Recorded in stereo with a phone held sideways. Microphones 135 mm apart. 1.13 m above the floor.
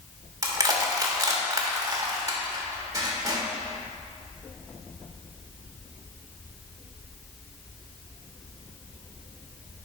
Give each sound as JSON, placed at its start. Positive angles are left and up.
{"t": 0.4, "sound": "crushing", "side_deg": -25, "distance_m": 1.2}